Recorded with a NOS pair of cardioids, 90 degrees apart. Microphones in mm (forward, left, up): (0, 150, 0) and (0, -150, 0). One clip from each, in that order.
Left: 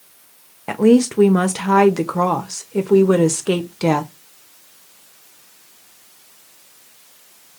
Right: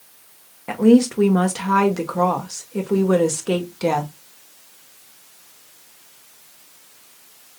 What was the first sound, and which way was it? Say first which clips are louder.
A woman speaking: left 1 dB; 20° left.